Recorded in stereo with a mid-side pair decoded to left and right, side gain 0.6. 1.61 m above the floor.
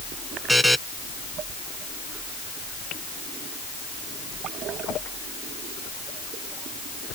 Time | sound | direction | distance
0.5 | a buzzer | straight ahead | ?